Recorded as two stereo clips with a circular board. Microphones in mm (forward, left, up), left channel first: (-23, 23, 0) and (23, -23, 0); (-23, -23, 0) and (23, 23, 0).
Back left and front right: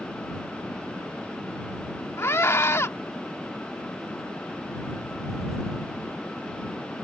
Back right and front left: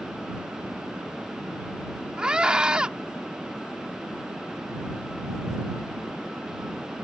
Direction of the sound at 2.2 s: 115° left.